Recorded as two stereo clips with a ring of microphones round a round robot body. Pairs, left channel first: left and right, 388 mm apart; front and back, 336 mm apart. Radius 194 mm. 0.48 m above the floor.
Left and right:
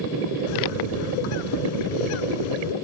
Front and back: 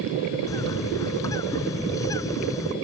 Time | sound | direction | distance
0.5 | a bird | 80° left | ?